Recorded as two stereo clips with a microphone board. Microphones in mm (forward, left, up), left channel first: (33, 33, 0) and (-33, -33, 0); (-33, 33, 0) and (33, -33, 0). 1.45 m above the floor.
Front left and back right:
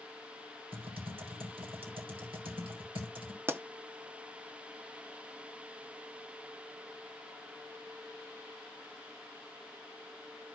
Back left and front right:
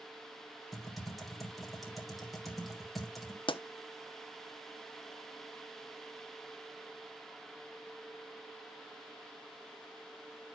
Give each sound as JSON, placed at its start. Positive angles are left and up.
{"t": 0.7, "sound": "typing on a keyboard", "azimuth_deg": -135, "distance_m": 3.5}
{"t": 3.5, "sound": "a pop", "azimuth_deg": 160, "distance_m": 0.7}